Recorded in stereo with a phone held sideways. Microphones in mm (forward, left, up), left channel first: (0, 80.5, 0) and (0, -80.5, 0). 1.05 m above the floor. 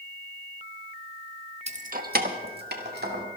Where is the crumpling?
No crumpling in this recording.